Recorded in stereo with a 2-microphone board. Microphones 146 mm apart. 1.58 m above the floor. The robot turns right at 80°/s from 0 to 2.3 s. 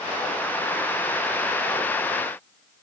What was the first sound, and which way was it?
Only background noise.